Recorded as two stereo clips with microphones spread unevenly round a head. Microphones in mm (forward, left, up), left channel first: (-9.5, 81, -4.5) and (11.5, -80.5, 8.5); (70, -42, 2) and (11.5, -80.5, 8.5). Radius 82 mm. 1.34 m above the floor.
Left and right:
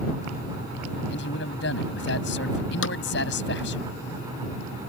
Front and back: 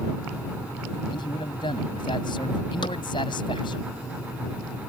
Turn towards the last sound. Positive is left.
turn(degrees=85)